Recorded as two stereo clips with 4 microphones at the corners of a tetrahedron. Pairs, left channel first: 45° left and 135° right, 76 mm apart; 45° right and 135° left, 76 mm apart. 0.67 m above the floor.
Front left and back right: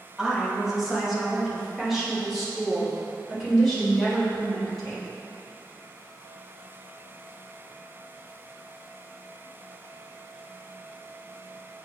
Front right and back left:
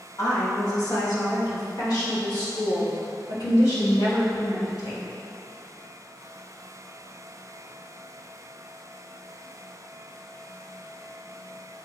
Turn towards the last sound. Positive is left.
turn(degrees=-45)